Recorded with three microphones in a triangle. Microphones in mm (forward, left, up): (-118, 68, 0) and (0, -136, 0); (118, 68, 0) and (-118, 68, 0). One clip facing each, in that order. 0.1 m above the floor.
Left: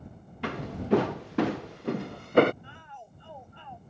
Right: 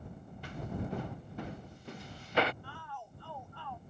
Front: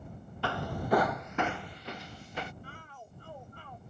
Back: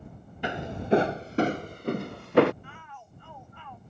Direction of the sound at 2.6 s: 50° left.